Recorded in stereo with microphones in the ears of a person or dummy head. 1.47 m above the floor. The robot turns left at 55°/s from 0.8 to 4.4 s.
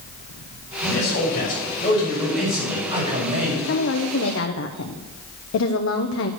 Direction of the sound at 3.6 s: 125° left.